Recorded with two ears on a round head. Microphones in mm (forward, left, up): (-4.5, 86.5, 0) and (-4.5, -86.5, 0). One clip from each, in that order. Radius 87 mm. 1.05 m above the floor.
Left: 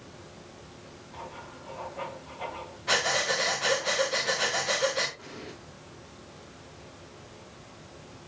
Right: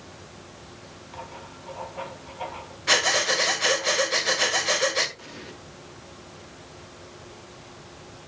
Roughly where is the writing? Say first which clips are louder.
Right 2 dB; right.